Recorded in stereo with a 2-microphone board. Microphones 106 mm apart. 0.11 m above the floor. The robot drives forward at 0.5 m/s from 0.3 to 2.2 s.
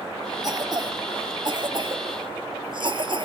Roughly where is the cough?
Right.